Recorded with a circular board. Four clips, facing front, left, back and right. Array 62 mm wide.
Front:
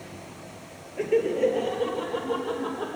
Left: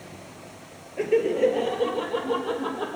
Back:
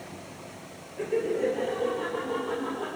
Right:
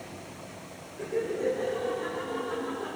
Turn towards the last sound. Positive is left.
turn(degrees=75)